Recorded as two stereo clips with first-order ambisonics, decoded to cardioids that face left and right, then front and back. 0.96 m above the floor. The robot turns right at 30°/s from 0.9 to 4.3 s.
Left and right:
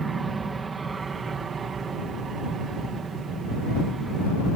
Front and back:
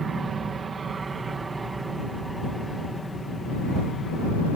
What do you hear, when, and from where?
0.0 s an aircraft: 140° right; by 4.6 s 35° right